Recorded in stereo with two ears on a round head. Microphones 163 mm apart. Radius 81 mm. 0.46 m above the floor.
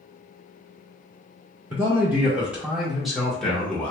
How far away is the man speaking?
About 1.0 m.